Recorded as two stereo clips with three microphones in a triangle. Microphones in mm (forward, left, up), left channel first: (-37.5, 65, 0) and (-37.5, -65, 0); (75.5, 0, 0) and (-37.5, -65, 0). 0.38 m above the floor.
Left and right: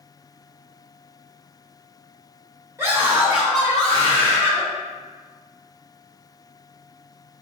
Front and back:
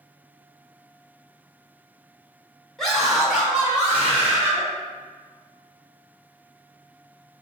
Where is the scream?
50° right, 1.3 m; by 4.6 s 140° left, 1.5 m.